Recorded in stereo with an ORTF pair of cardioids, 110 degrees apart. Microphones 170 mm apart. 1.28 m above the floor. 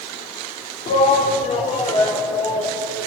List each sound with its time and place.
0.9 s a shout: 45° left, 3 m; by 2.8 s 30° left, 6 m